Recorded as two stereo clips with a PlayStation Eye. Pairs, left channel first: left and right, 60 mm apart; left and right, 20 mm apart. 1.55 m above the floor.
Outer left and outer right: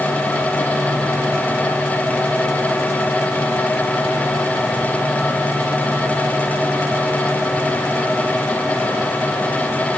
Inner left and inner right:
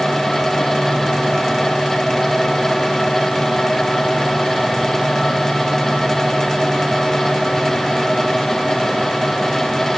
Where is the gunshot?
No gunshot in this recording.